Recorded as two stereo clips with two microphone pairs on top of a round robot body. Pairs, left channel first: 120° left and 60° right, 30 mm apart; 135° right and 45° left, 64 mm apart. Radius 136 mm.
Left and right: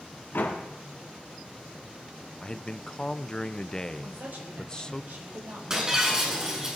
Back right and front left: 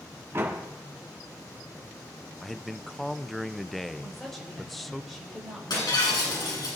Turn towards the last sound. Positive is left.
turn(degrees=-130)